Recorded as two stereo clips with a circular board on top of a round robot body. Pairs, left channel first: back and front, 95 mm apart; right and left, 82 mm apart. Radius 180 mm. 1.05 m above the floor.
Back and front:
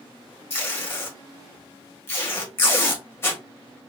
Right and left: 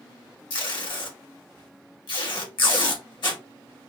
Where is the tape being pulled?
115° right, 1.1 m.